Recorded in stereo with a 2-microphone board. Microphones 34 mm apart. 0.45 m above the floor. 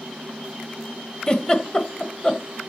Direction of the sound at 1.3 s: 25° left (ahead or behind).